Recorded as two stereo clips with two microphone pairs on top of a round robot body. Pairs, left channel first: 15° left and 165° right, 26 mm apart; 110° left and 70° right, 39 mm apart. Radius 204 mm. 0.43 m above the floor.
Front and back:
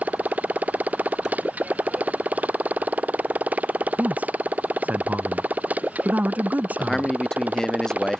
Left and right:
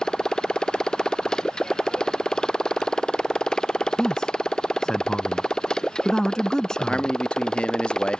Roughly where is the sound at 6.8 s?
Left.